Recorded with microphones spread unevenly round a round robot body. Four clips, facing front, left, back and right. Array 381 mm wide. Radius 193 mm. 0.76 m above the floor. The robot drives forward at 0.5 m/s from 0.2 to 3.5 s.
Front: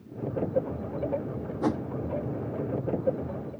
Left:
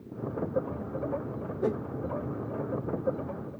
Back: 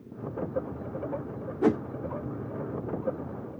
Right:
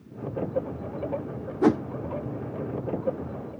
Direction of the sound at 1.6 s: 85° right.